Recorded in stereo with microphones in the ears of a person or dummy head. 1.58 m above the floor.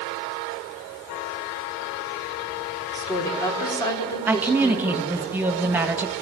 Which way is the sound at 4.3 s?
15° right (ahead or behind).